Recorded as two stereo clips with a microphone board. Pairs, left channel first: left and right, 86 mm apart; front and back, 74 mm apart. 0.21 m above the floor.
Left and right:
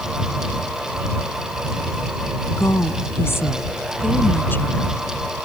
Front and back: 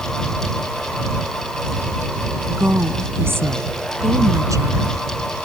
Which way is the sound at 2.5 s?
125° left.